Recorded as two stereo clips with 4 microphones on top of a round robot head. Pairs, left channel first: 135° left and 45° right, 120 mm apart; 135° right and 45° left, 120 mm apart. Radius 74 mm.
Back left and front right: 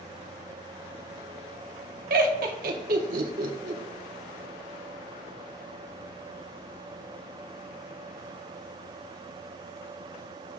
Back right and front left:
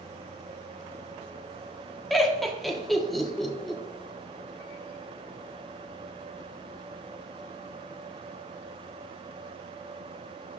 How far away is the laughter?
About 1.3 m.